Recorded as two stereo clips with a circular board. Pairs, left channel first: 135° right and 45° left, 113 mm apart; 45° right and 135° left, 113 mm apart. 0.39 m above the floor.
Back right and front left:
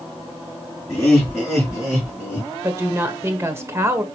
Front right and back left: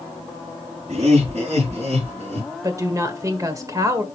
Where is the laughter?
150° left, 4.5 m; by 2.5 s 155° left, 3.5 m.